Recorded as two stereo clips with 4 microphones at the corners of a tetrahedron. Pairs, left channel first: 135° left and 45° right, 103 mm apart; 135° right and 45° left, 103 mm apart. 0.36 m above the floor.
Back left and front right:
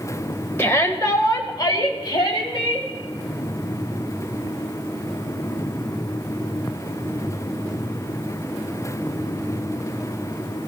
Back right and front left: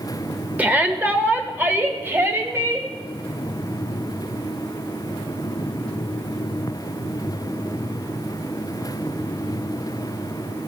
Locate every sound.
0.6 s a shout: 100° left, 1.1 m; by 2.9 s 105° left, 2.5 m